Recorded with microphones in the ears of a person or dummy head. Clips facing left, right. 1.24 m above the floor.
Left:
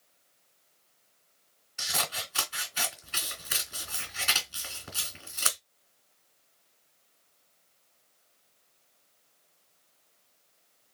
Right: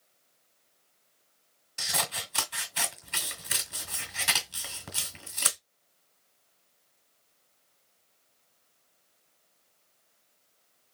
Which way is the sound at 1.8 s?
45° right (ahead or behind).